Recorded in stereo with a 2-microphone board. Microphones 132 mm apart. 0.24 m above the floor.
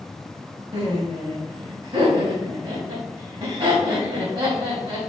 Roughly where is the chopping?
No chopping in this recording.